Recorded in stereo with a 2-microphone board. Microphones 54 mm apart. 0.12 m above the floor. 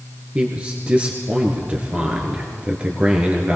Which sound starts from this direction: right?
A man speaking, at 0.3 s.